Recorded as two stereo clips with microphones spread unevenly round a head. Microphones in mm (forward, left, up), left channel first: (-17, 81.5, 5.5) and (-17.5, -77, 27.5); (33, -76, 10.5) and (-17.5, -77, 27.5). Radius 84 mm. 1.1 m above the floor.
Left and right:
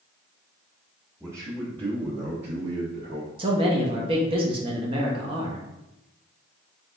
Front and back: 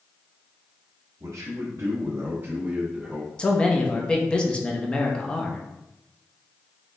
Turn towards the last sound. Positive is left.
turn(degrees=-35)